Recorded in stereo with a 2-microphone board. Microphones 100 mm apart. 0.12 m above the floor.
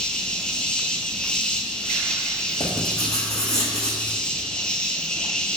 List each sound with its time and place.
0.0 s an insect: 10° left (ahead or behind), 1.3 m
2.6 s writing: 35° left (ahead or behind), 4 m